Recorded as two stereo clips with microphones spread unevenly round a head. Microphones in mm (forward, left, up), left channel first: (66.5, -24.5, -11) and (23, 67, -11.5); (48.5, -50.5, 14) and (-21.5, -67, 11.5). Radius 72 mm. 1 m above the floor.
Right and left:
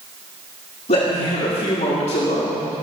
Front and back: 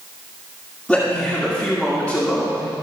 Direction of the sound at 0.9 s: 70° right.